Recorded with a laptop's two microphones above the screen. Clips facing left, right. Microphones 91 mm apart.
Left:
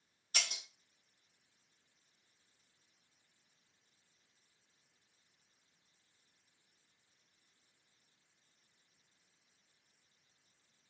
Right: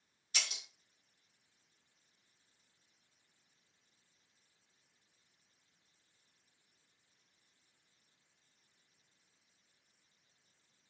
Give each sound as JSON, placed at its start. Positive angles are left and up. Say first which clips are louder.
{"t": 0.3, "sound": "breaking glass", "louder": "left 2 dB", "side_deg": 50, "distance_m": 0.9}